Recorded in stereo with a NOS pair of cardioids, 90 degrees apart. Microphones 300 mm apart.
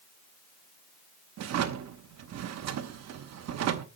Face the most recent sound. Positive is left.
turn(degrees=-60)